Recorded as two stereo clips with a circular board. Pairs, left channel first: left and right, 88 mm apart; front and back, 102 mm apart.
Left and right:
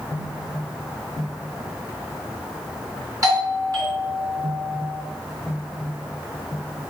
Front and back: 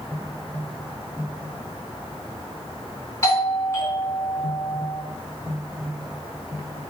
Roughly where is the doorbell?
Ahead right.